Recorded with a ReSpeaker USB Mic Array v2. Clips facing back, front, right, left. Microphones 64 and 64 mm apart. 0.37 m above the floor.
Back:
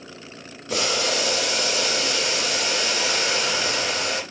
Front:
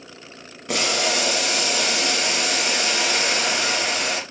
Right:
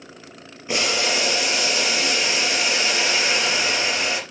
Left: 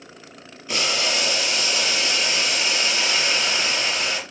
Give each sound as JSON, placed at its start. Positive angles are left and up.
{"t": 0.7, "sound": "boiling", "azimuth_deg": -20, "distance_m": 4.0}